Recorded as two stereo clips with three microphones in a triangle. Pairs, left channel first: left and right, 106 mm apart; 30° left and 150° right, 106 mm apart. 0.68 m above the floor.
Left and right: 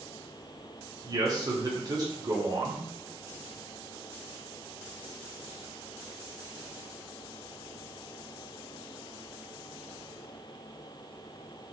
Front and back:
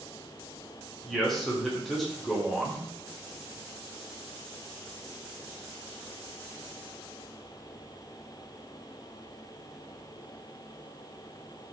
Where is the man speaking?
60° right, 0.7 m.